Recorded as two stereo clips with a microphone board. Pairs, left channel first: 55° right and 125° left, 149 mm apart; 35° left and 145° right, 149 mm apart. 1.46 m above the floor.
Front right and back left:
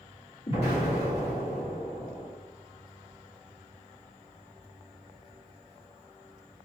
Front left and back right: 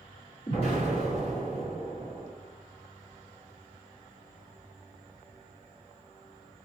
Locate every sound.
0.5 s an explosion: 15° right, 1.7 m